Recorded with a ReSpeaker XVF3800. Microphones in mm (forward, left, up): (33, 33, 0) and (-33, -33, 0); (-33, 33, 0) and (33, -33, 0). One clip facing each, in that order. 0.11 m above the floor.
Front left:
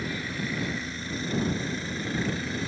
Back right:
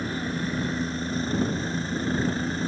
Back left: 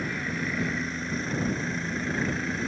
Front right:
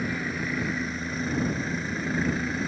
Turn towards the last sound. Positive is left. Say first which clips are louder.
# back right 4 dB, front right 1 dB
turn(degrees=-130)